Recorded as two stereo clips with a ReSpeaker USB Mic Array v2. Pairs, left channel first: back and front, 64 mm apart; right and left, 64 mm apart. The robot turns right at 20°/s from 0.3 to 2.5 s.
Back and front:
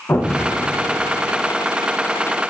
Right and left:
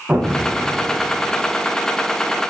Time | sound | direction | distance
0.1 | an explosion | 150° left | 0.5 m